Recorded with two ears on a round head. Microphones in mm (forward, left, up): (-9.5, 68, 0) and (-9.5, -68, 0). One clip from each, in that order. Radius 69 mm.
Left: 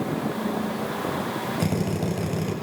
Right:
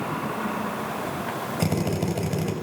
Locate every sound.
1.6 s a drill: 15° right (ahead or behind), 7 m